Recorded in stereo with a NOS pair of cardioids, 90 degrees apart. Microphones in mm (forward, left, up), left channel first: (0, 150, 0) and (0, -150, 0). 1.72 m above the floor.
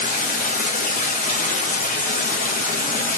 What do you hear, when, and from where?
0.0 s running water: 30° left, 0.9 m